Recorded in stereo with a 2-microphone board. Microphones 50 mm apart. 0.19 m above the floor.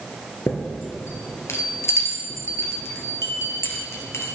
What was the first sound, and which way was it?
A chime, 65° left (ahead or behind).